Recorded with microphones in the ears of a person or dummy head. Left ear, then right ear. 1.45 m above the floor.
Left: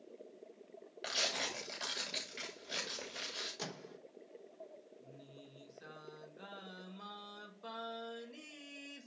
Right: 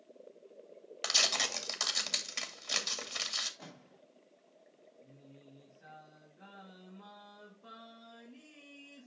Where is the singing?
55° left (ahead or behind), 3 m.